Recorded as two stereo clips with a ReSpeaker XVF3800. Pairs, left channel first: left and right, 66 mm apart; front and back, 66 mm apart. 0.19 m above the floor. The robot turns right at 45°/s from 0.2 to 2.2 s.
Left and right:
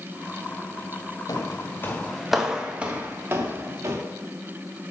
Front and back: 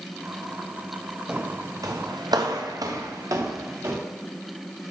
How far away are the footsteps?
About 2 m.